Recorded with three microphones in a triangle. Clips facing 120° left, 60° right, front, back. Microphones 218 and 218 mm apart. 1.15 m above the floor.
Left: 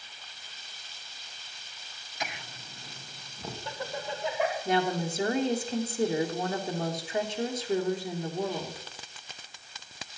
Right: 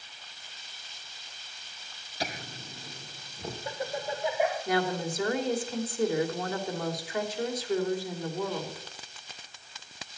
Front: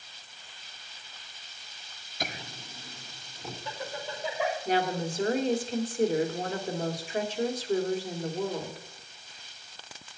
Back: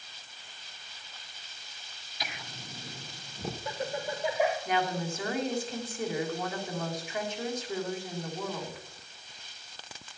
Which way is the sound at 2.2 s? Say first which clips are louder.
Right 4 dB, front 5 dB; 15° right.